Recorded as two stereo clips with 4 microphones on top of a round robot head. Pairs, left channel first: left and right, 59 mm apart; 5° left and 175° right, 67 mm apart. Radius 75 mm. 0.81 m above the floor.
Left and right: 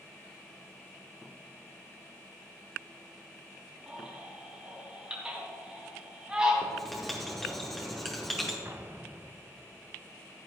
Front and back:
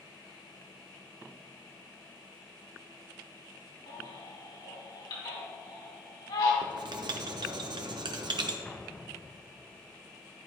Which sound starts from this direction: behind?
Writing, at 6.6 s.